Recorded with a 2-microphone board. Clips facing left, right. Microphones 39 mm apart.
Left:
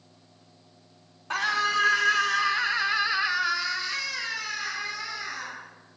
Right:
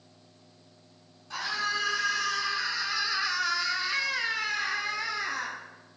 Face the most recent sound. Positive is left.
turn(degrees=-50)  # may be behind; listen again after turning